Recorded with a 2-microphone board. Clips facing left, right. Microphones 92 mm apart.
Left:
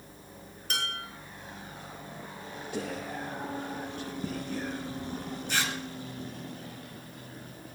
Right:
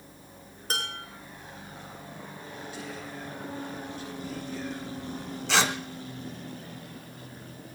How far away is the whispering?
About 2.5 m.